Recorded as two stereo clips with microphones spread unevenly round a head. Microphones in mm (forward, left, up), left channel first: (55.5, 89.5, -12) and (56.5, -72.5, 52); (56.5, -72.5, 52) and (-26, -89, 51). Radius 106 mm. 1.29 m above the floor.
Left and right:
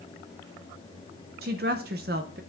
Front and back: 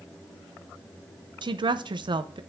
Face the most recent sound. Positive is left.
turn(degrees=-135)